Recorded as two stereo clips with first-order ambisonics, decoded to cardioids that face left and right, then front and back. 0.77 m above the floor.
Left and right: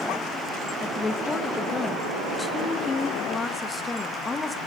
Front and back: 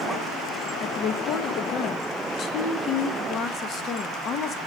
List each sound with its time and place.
0.8 s a woman speaking: 20° left, 0.7 m